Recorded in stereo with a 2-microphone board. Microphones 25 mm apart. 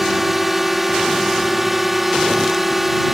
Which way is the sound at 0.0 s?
5° right (ahead or behind).